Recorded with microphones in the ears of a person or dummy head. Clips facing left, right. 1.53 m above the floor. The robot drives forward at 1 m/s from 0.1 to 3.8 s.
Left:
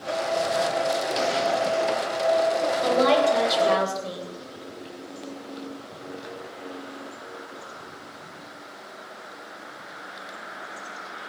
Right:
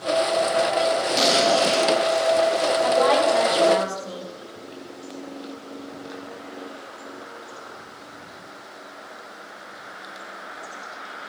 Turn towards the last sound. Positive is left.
turn(degrees=45)  # may be behind; listen again after turning